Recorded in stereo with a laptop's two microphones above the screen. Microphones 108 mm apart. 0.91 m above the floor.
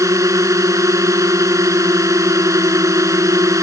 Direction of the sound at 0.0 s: 30° right (ahead or behind).